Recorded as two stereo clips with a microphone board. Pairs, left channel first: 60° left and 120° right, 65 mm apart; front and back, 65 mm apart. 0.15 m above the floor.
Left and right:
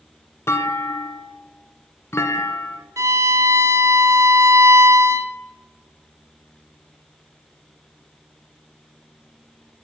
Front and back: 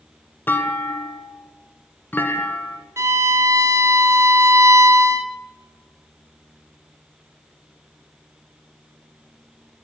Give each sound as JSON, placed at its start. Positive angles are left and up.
{"t": 0.5, "sound": "a clunk", "azimuth_deg": 40, "distance_m": 0.6}
{"t": 3.0, "sound": "a violin", "azimuth_deg": -145, "distance_m": 0.5}